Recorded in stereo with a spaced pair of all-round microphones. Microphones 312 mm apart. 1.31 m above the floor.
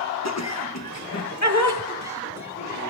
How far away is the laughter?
About 1.0 m.